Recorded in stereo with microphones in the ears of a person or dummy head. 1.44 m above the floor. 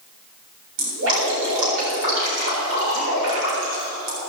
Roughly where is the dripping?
Right.